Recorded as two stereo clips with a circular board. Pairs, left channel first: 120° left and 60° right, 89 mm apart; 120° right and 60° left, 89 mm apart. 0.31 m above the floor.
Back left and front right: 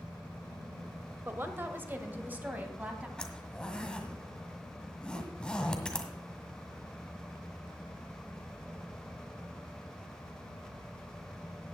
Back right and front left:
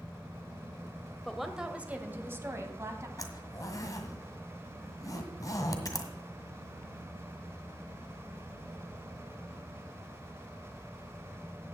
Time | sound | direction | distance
1.2 | a woman speaking | 35° right | 1.0 m
3.2 | a zipper | 160° right | 1.6 m